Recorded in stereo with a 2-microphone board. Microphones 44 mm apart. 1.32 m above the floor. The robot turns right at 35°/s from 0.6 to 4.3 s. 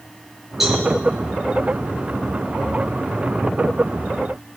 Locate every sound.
0.6 s a cowbell: 10° right (ahead or behind), 5 m; by 0.8 s centre (ahead or behind), 5 m